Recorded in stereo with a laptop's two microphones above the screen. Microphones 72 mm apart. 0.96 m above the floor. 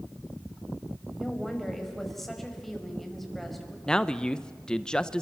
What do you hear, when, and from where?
1.2 s a woman speaking: 5° left (ahead or behind), 5.5 m
3.9 s a man speaking: 10° left (ahead or behind), 0.6 m